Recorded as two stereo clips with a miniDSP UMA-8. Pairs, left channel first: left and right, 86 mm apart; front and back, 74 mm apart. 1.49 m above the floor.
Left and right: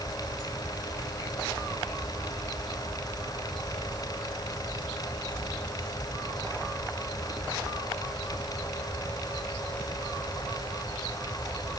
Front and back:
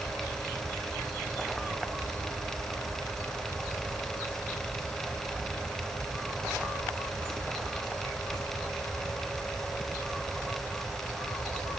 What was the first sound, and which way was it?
Only background noise.